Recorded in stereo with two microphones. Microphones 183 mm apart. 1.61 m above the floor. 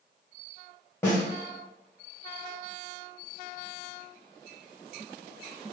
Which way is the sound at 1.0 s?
15° left (ahead or behind).